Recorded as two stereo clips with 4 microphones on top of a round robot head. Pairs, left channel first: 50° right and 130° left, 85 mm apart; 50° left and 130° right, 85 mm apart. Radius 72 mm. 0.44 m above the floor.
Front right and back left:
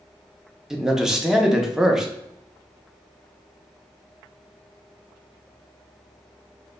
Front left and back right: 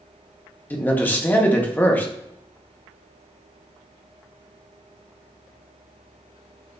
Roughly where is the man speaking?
Ahead left.